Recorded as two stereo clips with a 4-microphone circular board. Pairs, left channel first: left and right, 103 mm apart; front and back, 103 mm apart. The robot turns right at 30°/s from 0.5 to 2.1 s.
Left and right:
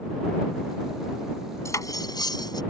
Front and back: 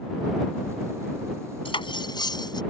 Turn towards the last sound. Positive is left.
turn(degrees=45)